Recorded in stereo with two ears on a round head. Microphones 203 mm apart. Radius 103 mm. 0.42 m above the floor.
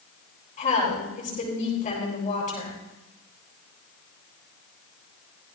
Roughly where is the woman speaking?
Left.